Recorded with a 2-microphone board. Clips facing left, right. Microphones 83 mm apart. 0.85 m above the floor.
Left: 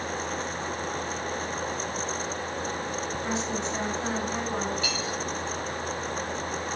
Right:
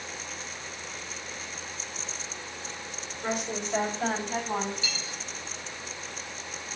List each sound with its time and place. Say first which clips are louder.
3.2 s a woman speaking: right 2 dB; 55° right (ahead or behind), 4.5 m; by 4.7 s 50° right (ahead or behind), 6.5 m
4.8 s cutlery clinking: left 8 dB; 60° left (ahead or behind), 3 m